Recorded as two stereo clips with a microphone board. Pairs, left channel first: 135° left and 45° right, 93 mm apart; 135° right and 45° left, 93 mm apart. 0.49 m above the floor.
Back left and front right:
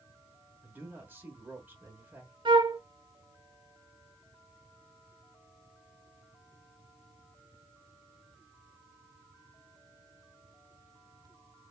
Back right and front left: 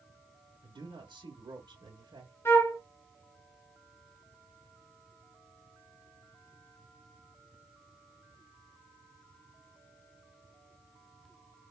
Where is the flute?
75° right, 0.9 m.